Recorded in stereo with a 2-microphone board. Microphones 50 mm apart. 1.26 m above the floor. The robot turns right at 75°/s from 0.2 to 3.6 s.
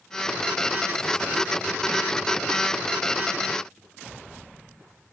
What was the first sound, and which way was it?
Only background noise.